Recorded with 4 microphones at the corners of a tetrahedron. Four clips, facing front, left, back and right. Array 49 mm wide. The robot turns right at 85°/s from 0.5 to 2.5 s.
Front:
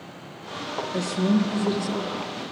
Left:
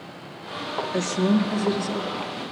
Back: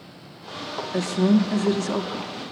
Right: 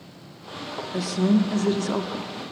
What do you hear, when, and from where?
0.9 s a woman speaking: 150° left, 1.2 m; by 2.3 s 95° right, 1.2 m